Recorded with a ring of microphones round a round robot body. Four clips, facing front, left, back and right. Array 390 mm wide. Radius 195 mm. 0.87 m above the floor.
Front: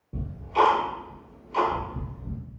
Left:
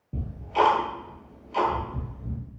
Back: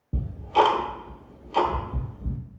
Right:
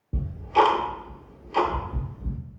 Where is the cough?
No cough in this recording.